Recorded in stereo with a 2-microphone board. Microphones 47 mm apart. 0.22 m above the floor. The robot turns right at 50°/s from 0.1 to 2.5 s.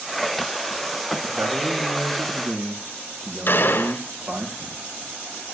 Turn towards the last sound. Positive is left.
turn(degrees=50)  # may be behind; listen again after turning